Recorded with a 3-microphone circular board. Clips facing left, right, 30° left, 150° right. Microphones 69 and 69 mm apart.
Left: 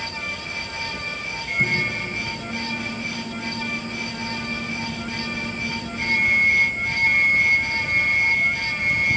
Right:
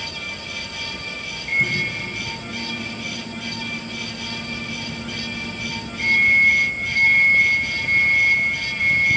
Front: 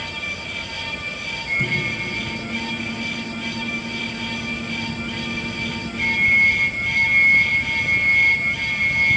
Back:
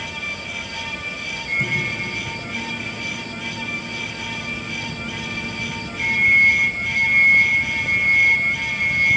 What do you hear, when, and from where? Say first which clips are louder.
1.5 s a microwave: right 1 dB, even; 60° left, 8.5 m